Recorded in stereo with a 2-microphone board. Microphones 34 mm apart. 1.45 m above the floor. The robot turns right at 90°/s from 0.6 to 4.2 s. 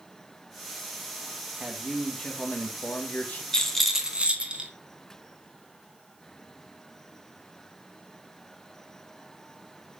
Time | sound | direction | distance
1.6 | a man speaking | 40° right | 1.9 m
3.5 | a rattle | 155° left | 1.8 m